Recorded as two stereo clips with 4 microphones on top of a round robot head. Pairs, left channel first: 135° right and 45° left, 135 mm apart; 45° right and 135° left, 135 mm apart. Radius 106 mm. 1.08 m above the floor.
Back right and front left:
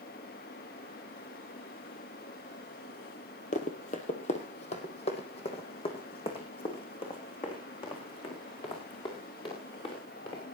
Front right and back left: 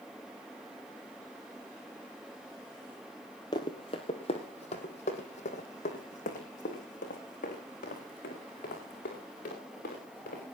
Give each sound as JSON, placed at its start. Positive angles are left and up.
{"t": 3.5, "sound": "running footsteps", "azimuth_deg": -105, "distance_m": 1.4}